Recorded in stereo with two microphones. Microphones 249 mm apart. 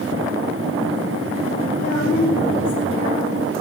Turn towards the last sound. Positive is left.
turn(degrees=40)  # may be behind; listen again after turning